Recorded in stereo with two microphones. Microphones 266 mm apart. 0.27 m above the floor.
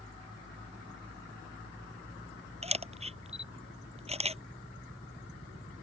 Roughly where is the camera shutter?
Right.